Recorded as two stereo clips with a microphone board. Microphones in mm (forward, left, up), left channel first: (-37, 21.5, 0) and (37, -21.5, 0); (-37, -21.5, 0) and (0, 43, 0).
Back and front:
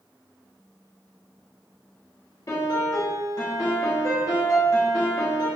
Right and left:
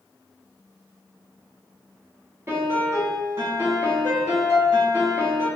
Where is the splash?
I don't hear a splash.